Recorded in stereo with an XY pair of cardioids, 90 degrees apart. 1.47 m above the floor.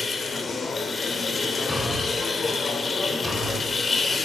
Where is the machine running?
40° left, 3 m.